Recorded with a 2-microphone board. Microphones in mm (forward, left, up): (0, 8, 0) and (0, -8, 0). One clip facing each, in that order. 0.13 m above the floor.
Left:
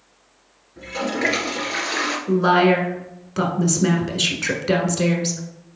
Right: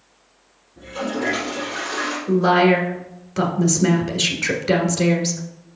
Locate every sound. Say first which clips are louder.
0.8 s a toilet flushing: left 2 dB; 55° left (ahead or behind), 1.9 m
2.3 s a woman speaking: right 1 dB; 10° left (ahead or behind), 1.2 m